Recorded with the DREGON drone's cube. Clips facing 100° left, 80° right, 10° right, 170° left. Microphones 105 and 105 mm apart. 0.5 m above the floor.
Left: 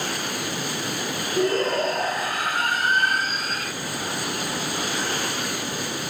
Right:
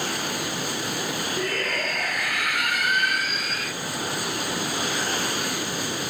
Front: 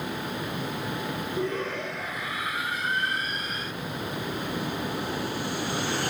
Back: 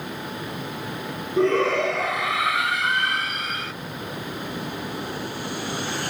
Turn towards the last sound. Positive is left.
turn(degrees=155)